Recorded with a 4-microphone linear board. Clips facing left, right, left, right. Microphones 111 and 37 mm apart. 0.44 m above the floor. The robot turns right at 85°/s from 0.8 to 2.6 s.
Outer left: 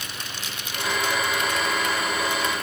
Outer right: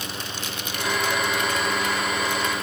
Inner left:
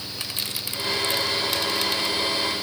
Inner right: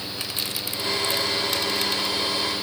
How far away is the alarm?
I don't hear an alarm.